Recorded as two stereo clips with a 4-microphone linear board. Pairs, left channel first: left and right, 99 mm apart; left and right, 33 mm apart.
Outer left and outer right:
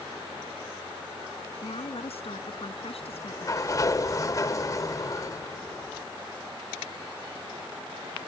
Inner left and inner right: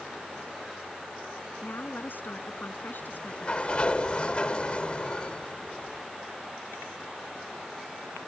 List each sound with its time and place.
1.6 s a woman speaking: 75° left (ahead or behind)
3.0 s a sliding door: 35° left (ahead or behind)